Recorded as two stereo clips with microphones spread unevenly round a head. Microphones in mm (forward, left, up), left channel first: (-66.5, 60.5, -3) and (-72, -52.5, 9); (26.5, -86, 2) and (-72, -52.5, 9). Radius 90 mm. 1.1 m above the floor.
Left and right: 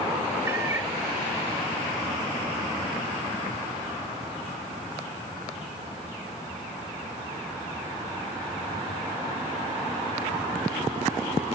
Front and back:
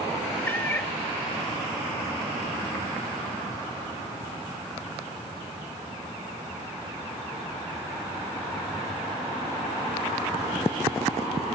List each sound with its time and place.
0.5 s a cat meowing: 80° right, 0.7 m